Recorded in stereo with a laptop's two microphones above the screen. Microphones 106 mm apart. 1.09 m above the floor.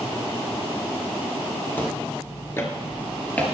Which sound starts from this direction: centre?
Footsteps, at 1.8 s.